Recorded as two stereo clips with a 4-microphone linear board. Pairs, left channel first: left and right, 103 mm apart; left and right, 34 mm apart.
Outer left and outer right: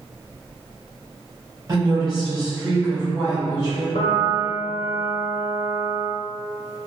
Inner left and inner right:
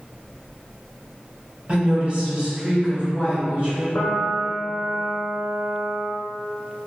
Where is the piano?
90° left, 0.6 m.